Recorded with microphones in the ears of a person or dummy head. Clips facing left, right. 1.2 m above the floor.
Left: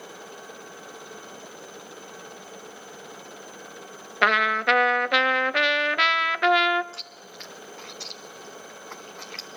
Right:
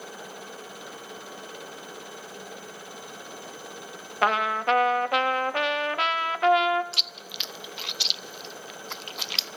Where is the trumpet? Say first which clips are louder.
Left 1 dB; 25° left (ahead or behind), 0.6 m.